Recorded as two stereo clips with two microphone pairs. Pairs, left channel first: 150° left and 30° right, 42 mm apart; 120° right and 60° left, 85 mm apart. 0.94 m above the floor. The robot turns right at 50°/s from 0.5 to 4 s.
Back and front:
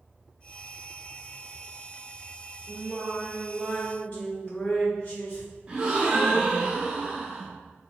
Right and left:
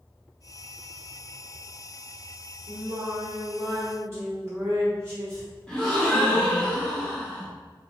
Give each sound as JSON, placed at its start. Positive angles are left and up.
{"t": 2.7, "sound": "singing", "azimuth_deg": 55, "distance_m": 1.3}
{"t": 5.7, "sound": "a gasp", "azimuth_deg": -45, "distance_m": 1.0}